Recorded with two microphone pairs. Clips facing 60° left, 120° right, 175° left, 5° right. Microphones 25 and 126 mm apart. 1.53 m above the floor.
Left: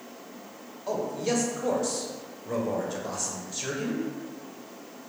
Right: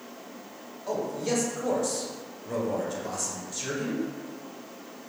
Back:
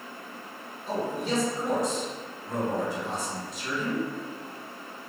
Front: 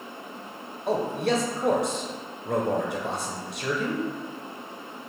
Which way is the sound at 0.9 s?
15° right.